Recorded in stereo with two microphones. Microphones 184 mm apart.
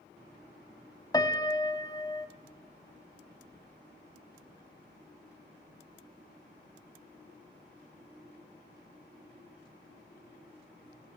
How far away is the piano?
About 1.0 m.